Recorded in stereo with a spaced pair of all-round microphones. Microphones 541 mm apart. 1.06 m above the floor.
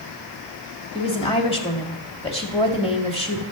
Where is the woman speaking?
10° left (ahead or behind), 2 m.